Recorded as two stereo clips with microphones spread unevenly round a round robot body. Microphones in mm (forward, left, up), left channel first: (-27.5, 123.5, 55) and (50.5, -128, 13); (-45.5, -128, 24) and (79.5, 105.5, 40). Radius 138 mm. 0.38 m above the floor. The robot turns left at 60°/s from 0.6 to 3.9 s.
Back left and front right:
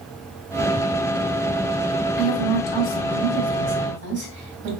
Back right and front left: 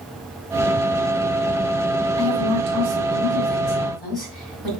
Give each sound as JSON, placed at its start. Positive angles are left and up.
{"t": 2.2, "sound": "a woman speaking", "azimuth_deg": 75, "distance_m": 2.5}